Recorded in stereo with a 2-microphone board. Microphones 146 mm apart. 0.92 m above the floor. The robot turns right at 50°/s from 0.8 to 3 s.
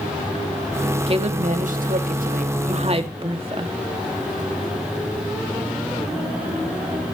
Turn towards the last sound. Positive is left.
turn(degrees=-40)